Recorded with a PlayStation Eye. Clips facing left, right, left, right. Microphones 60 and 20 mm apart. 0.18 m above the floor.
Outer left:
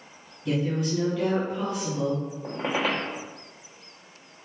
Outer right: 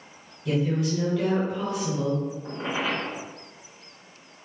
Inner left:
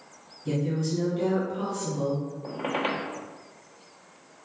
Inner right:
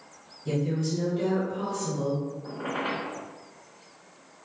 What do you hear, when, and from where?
0.5 s a woman speaking: 10° left (ahead or behind), 2.0 m
2.4 s a squeak: 80° left, 0.8 m